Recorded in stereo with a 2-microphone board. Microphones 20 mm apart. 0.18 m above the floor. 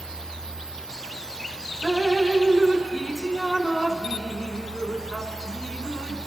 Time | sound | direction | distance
1.8 | dripping | 25° right (ahead or behind) | 0.9 m